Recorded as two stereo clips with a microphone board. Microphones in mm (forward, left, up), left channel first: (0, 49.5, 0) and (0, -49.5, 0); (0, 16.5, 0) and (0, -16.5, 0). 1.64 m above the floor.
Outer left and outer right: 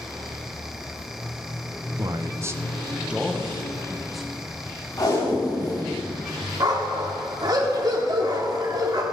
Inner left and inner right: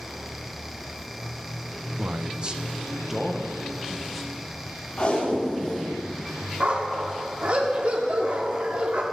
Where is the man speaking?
40° right (ahead or behind), 0.6 m; by 4.5 s centre (ahead or behind), 1.9 m.